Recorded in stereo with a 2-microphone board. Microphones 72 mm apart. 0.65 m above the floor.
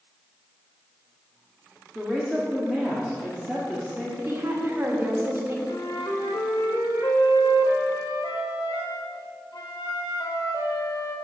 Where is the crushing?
No crushing in this recording.